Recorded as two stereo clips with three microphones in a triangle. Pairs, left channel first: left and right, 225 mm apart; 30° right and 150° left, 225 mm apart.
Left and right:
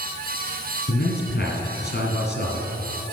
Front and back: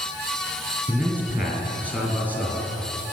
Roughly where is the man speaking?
Left.